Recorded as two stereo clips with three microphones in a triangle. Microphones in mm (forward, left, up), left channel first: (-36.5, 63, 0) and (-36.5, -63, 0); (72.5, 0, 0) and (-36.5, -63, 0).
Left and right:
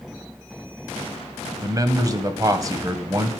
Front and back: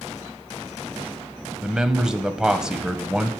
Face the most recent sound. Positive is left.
turn(degrees=-70)